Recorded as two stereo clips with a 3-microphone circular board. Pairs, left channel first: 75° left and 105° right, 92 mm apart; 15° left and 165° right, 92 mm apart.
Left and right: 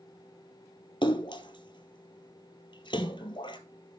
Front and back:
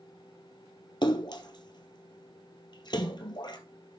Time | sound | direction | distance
1.0 | a splash | 50° left | 0.9 m